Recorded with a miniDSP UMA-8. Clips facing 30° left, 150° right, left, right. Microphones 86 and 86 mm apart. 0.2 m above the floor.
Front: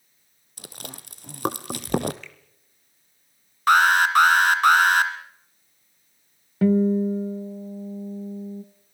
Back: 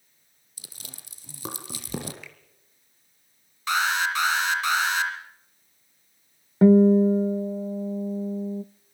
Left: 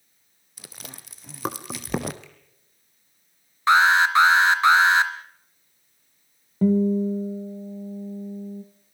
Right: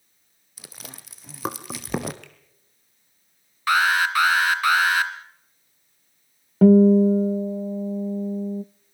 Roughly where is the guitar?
Right.